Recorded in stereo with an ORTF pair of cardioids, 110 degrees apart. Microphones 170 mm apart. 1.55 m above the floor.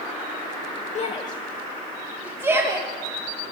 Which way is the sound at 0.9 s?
45° left.